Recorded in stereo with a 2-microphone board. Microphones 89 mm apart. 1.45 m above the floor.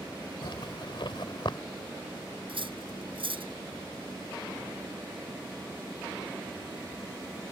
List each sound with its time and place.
0.4 s a zipper: 65° left (ahead or behind)
2.5 s cutlery clinking: 80° right